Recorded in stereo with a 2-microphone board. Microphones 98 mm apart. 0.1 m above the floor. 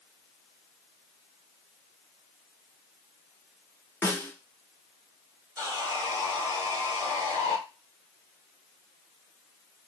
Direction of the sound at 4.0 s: 20° left (ahead or behind).